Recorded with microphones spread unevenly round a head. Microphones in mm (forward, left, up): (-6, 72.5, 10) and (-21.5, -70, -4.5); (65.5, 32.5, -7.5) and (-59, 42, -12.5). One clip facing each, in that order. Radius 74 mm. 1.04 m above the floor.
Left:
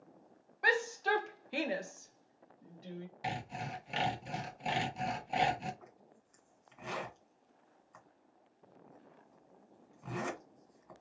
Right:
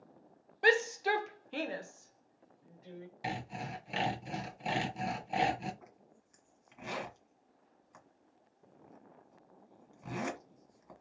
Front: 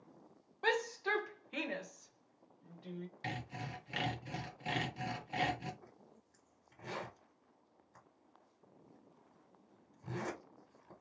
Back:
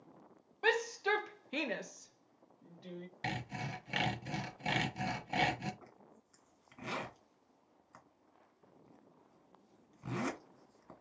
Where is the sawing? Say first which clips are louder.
Even, back 5 dB; 170° left, 1.2 m.